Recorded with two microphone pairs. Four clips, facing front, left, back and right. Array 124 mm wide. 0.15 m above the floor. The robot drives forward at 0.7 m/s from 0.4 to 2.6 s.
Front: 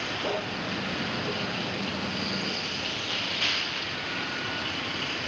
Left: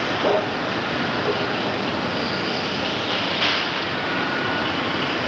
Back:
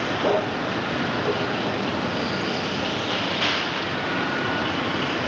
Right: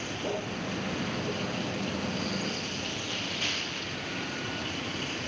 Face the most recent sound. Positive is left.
turn(degrees=125)